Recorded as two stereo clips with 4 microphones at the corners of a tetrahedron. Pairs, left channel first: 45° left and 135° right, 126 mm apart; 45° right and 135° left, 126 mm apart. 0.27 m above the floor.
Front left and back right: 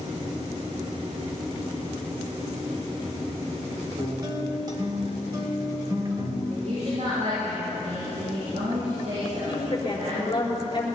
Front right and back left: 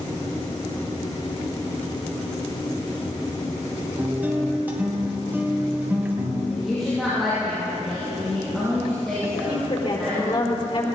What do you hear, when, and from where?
4.0 s a guitar: 160° right, 1.9 m
6.5 s a woman speaking: 135° right, 6.5 m
9.3 s a woman speaking: 5° right, 4.5 m